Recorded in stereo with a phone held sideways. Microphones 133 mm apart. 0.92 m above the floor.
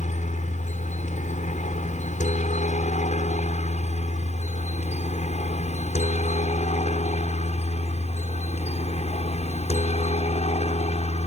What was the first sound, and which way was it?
A helicopter, 65° left (ahead or behind).